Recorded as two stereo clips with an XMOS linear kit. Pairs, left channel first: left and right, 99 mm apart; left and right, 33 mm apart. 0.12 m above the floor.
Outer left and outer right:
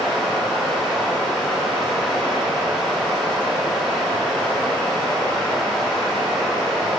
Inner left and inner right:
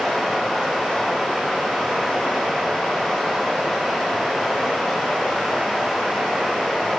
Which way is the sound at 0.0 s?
5° left (ahead or behind).